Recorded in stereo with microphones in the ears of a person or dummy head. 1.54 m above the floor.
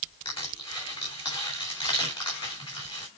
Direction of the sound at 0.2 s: 30° left (ahead or behind).